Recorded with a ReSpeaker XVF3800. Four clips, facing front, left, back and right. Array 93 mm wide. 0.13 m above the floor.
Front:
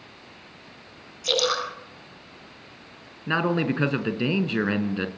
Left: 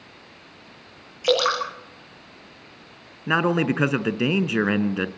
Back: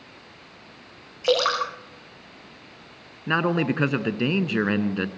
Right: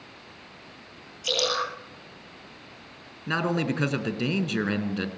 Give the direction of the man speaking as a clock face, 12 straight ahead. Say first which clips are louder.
Left 5 dB, back 1 dB; 8 o'clock.